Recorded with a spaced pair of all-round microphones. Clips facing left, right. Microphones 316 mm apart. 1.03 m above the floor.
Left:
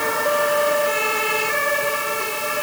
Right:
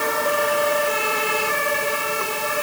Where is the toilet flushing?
No toilet flushing in this recording.